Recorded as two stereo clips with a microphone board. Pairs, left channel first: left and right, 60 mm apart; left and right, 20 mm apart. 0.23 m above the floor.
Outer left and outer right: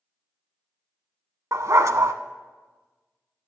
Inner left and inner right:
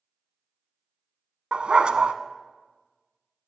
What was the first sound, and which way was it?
A dog barking, 60° right (ahead or behind).